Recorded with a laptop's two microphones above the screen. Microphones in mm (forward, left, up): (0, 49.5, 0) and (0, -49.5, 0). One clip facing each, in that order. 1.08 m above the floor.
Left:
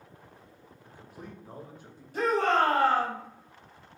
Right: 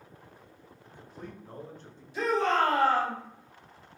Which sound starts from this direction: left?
A shout, at 2.1 s.